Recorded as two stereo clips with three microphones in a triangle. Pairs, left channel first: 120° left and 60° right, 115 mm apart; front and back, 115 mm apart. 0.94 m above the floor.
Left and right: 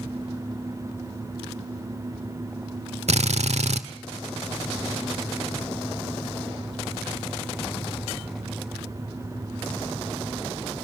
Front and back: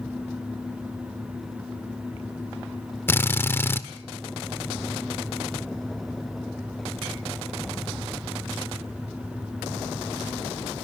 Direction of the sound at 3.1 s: 70° right.